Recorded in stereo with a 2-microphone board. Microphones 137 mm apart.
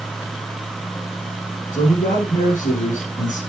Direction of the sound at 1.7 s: 70° left (ahead or behind).